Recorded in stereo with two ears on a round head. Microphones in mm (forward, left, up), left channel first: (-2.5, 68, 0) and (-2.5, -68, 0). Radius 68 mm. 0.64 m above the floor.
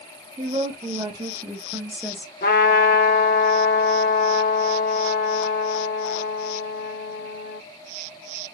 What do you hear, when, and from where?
0.4 s a woman speaking: 35° right (ahead or behind), 1.3 m; by 2.3 s 5° left (ahead or behind), 0.9 m
2.4 s a trumpet: 60° left (ahead or behind), 1.2 m